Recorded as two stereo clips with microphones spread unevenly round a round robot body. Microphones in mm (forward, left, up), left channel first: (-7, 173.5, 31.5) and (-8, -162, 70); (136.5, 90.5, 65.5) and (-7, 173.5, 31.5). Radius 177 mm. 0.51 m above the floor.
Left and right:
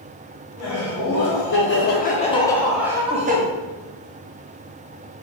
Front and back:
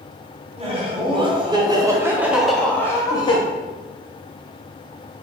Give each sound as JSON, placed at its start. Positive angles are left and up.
{"t": 0.6, "sound": "laughter", "azimuth_deg": 110, "distance_m": 1.6}